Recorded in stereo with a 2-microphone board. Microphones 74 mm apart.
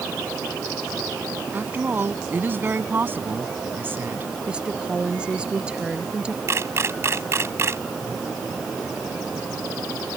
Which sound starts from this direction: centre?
A woman speaking, at 4.5 s.